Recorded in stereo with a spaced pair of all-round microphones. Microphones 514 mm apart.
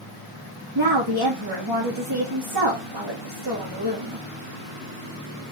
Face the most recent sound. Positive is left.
turn(degrees=-45)  # may be behind; listen again after turning